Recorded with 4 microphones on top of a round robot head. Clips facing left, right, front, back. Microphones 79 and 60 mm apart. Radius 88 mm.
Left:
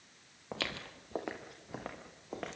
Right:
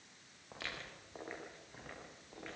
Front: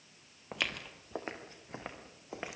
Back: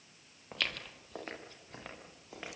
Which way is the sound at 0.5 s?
70° left.